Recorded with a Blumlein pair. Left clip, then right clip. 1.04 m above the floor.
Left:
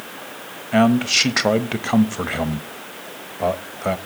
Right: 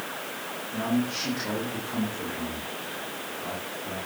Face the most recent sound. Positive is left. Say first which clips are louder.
# left 14 dB
turn(degrees=45)